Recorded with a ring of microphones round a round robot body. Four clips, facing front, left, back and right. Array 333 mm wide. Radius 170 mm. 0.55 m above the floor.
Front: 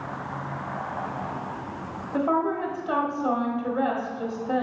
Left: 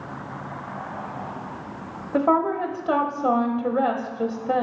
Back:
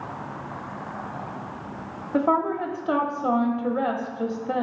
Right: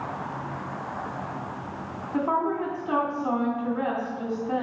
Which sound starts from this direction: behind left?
A woman speaking, at 2.1 s.